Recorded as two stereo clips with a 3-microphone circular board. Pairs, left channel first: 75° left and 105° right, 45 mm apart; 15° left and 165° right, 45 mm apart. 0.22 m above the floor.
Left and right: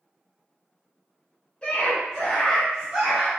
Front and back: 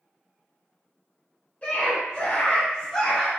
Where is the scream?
25° left, 1.2 m; by 3.3 s 60° right, 1.1 m.